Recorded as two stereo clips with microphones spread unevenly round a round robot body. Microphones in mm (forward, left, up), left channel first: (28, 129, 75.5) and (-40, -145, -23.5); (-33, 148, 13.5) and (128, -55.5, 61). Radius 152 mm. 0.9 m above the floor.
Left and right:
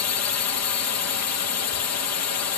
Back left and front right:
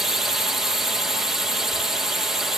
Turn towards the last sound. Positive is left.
turn(degrees=50)